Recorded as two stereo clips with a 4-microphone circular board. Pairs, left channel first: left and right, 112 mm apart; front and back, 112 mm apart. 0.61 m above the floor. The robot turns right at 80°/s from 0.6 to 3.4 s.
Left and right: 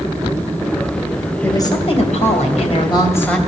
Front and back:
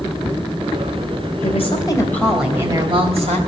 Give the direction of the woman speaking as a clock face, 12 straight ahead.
11 o'clock.